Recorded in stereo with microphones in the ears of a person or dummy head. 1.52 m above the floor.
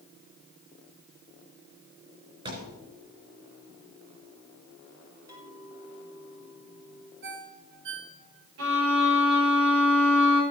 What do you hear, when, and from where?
2.5 s a thud: 30° right (ahead or behind), 3.5 m
5.3 s a clink: 15° right (ahead or behind), 4 m
7.2 s a ringtone: 60° right (ahead or behind), 1.7 m
8.6 s a violin: 80° right, 6.5 m